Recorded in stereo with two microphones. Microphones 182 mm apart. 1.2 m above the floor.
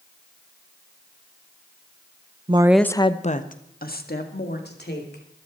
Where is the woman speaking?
30° right (ahead or behind), 0.6 m; by 5.2 s 70° left (ahead or behind), 3 m.